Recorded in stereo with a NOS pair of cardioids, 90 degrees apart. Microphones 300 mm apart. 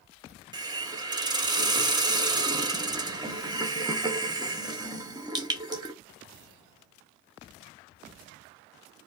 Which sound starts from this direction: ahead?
A hiss, at 0.5 s.